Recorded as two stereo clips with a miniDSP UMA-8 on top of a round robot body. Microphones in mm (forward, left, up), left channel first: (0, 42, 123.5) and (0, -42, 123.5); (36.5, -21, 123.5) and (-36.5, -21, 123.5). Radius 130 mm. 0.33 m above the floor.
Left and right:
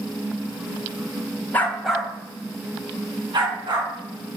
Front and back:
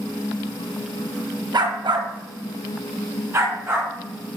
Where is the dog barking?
160° left, 1.2 m; by 3.9 s 120° right, 3 m.